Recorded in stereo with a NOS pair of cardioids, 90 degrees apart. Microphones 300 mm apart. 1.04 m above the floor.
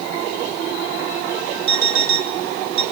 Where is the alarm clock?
70° right, 1.7 m.